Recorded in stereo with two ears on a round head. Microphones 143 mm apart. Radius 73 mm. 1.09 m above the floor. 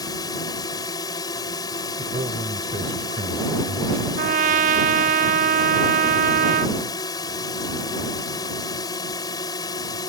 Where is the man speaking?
40° right (ahead or behind).